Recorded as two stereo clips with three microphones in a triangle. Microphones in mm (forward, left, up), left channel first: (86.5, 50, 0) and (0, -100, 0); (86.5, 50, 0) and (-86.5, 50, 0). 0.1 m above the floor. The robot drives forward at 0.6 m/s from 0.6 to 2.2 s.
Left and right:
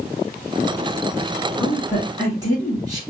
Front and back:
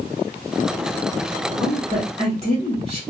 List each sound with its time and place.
1.6 s a woman speaking: 170° right, 1.5 m; by 3.0 s 175° right, 1.7 m